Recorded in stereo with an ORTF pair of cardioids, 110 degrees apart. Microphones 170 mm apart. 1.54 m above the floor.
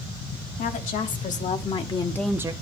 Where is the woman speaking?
55° left, 2.5 m; by 2.5 s 25° right, 0.7 m.